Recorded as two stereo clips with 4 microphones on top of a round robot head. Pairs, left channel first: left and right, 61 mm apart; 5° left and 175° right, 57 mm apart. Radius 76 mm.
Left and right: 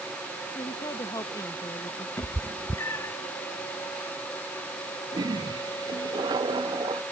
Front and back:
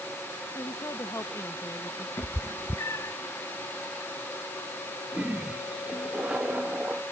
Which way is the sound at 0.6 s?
55° left.